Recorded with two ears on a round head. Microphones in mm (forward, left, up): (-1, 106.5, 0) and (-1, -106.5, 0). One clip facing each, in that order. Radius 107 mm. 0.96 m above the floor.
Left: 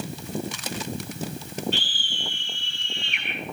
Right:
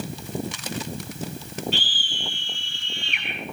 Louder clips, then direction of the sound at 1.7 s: Right 1 dB; 65° right (ahead or behind).